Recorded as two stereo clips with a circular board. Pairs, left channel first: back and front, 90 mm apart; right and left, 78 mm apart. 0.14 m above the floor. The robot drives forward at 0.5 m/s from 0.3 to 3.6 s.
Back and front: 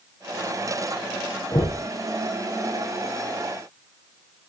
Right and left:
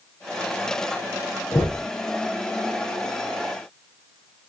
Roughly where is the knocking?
Behind right.